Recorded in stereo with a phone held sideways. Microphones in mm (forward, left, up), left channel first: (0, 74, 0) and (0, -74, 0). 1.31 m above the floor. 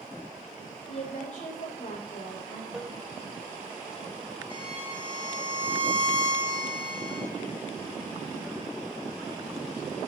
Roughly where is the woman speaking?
Left.